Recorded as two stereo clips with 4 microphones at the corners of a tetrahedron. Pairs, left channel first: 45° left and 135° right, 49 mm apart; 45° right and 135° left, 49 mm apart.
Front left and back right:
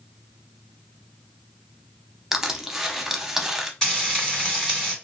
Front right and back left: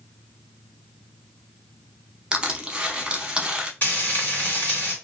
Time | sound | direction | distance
2.3 | crushing | 155° left | 0.6 m
3.8 | frying | 20° right | 1.9 m